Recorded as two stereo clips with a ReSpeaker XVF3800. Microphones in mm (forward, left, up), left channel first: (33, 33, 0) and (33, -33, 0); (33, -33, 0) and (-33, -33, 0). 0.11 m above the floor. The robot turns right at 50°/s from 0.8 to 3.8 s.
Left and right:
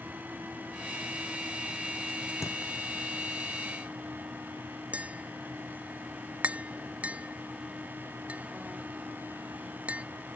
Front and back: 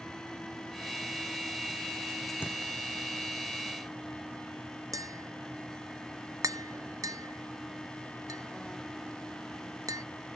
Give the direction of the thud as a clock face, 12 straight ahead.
10 o'clock.